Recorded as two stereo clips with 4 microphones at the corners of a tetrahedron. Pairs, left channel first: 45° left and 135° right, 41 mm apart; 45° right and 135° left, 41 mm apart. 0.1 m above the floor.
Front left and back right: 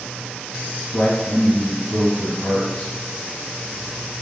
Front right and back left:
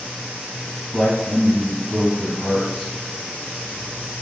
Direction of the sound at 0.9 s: 25° left.